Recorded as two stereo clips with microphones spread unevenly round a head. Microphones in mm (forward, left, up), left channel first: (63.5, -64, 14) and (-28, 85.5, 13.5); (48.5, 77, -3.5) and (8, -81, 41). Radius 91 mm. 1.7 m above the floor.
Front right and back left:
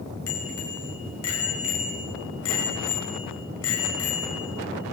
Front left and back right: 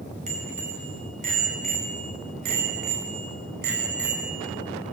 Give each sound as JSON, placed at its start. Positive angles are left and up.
{"t": 0.3, "sound": "a bicycle bell", "azimuth_deg": -60, "distance_m": 6.5}